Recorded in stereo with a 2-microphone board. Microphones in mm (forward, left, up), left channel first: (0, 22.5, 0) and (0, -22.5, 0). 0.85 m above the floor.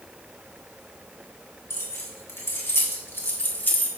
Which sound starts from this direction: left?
Keys jangling, at 1.7 s.